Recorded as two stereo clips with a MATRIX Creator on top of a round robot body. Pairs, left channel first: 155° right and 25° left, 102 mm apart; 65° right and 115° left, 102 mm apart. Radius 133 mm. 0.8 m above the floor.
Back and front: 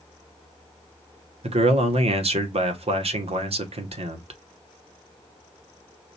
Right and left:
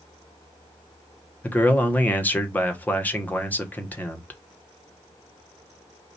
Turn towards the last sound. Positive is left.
turn(degrees=10)